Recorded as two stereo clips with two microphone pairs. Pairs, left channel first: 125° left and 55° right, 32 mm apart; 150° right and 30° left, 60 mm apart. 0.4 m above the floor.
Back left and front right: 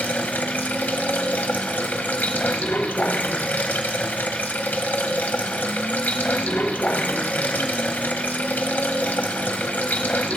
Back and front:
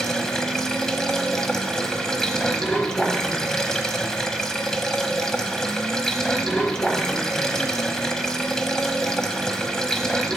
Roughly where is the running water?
Behind left.